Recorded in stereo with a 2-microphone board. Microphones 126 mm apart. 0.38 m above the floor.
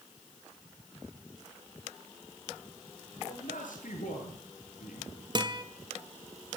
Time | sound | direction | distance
3.2 | a man speaking | 75° left (ahead or behind) | 8.5 m
5.3 | a guitar | 35° right (ahead or behind) | 1.4 m